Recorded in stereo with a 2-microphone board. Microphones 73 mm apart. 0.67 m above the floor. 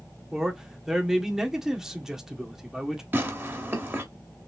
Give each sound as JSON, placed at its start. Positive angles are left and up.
{"t": 0.3, "sound": "a man speaking", "side_deg": -5, "distance_m": 1.5}
{"t": 3.1, "sound": "tearing paper", "side_deg": -25, "distance_m": 1.3}